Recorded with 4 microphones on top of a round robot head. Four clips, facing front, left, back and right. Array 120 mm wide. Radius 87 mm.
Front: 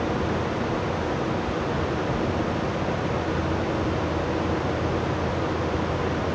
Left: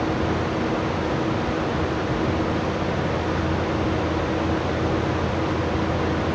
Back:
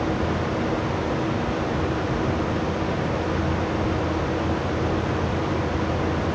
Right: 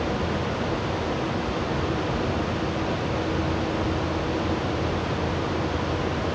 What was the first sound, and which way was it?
Only background noise.